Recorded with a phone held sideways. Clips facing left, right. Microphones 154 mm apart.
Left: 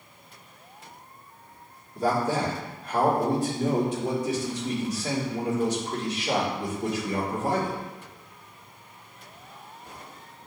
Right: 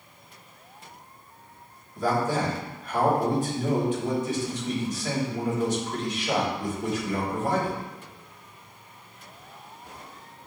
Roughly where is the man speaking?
Left.